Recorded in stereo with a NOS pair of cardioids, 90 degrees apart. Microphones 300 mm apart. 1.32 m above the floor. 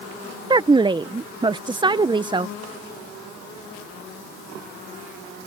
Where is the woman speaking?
15° right.